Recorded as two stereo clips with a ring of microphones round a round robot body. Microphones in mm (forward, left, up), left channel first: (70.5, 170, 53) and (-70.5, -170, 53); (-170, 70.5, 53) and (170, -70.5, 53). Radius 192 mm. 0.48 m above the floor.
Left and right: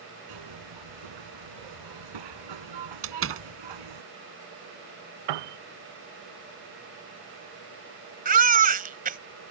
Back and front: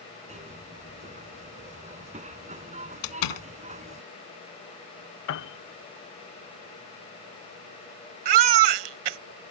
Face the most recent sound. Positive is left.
turn(degrees=-45)